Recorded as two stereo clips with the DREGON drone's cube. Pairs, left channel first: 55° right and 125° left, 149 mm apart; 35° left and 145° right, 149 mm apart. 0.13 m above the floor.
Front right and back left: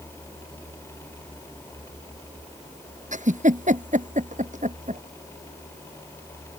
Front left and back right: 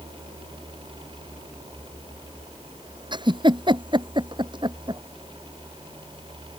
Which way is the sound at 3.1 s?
155° left.